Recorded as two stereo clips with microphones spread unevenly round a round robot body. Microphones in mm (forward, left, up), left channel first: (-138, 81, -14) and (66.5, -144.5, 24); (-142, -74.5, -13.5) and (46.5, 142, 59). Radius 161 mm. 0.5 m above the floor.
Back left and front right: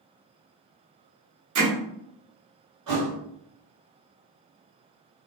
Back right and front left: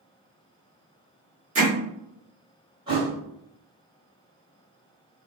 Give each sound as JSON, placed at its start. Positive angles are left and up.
{"t": 1.6, "sound": "hammering", "azimuth_deg": -20, "distance_m": 1.2}
{"t": 2.9, "sound": "a thud", "azimuth_deg": -20, "distance_m": 1.2}